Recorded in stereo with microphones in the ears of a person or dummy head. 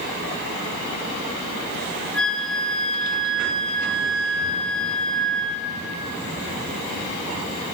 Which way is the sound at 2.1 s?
5° left (ahead or behind).